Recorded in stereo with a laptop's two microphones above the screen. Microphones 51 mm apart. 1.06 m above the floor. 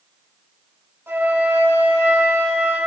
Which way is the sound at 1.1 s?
55° right (ahead or behind).